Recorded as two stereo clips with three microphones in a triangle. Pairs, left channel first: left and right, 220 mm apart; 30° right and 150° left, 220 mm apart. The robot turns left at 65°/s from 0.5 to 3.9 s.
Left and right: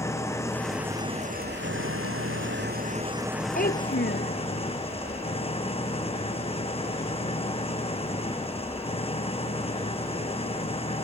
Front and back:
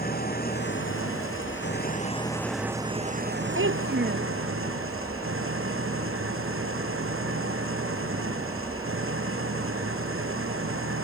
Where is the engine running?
15° left; by 11.1 s 150° left.